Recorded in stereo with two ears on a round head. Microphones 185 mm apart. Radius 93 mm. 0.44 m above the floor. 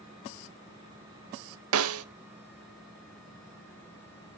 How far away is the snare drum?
About 0.8 m.